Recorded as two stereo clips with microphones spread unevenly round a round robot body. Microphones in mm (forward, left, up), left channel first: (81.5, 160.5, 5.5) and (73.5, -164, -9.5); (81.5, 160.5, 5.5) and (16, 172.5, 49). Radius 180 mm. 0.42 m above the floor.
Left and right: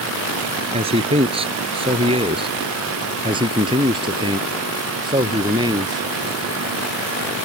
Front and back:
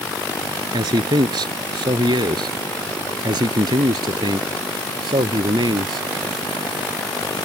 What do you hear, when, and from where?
0.7 s a man speaking: 165° right; by 6.1 s 170° right